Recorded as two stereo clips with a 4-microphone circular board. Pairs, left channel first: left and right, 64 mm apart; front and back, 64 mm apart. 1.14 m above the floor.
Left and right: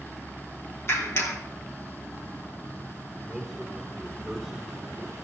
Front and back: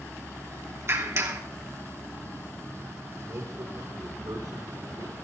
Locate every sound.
0.9 s a clap: 135° left, 2.5 m
3.3 s a man speaking: 175° left, 3 m